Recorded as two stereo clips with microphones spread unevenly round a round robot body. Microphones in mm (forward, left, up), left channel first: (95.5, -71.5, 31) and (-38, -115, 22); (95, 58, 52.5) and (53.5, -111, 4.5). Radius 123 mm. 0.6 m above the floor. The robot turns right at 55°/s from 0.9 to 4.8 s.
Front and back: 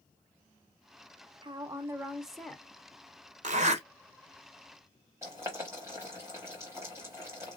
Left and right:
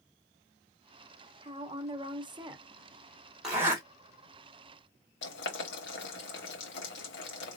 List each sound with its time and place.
1.4 s a woman speaking: 125° right, 0.9 m; by 2.6 s 60° right, 0.9 m
3.4 s a zipper: straight behind, 1.4 m; by 3.8 s 160° right, 1.4 m
5.2 s boiling: 120° left, 0.8 m